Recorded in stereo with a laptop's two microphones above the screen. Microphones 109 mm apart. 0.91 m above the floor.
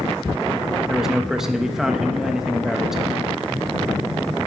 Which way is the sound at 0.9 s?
5° right (ahead or behind).